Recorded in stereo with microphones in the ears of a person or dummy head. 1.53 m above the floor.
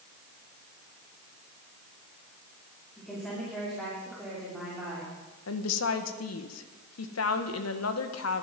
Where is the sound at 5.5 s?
85° left, 1.6 m.